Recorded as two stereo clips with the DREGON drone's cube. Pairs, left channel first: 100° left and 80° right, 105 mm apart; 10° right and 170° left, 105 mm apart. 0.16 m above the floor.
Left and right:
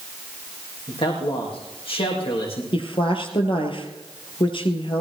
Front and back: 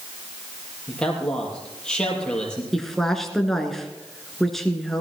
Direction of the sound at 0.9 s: 70° left.